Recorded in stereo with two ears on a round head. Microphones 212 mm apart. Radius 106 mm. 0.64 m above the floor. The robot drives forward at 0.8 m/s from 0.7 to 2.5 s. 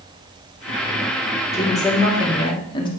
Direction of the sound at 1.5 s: 15° left (ahead or behind).